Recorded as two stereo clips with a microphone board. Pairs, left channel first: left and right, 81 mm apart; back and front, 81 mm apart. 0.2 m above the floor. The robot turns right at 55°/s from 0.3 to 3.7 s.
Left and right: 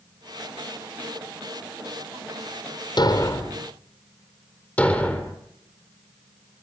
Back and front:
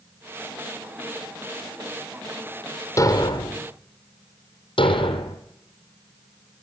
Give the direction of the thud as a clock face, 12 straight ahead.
8 o'clock.